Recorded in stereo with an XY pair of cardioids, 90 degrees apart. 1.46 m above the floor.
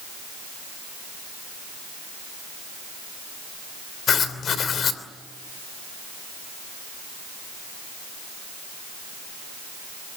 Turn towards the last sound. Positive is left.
turn(degrees=65)